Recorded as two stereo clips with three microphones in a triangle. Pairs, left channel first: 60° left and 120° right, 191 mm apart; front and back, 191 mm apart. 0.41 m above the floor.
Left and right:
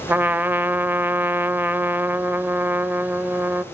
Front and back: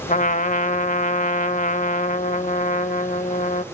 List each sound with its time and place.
0.1 s a trumpet: 40° right, 0.5 m